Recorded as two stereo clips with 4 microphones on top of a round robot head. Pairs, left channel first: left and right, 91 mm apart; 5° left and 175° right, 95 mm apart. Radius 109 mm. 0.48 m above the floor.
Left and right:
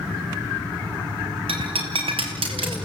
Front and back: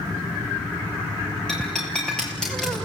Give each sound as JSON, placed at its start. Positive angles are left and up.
{"t": 1.5, "sound": "breaking glass", "azimuth_deg": -80, "distance_m": 4.0}